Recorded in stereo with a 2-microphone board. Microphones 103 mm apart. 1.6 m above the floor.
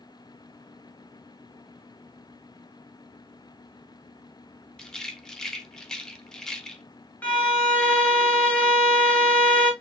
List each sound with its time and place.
4.8 s a rattle: 5° left (ahead or behind), 0.6 m
7.2 s a violin: 15° left (ahead or behind), 1.0 m